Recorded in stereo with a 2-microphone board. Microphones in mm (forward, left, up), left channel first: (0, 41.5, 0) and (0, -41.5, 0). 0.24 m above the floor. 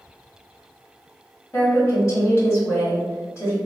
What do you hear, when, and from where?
1.5 s a woman speaking: 35° left (ahead or behind), 1.4 m